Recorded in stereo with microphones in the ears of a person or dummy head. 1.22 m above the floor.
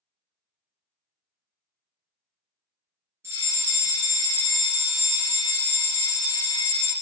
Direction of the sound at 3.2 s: 10° right (ahead or behind).